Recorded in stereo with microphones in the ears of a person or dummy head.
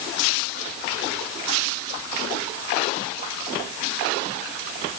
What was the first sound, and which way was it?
Only background noise.